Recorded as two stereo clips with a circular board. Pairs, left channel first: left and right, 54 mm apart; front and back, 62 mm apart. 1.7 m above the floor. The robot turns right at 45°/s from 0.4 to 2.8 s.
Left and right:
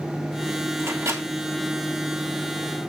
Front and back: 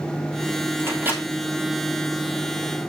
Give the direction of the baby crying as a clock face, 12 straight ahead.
No baby crying in this recording.